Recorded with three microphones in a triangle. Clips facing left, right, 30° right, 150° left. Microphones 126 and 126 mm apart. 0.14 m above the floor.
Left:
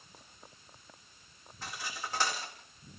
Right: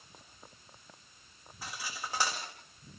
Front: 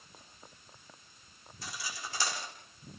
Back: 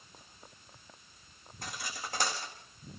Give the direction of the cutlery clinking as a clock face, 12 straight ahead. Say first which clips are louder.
Even, back 1 dB; 6 o'clock.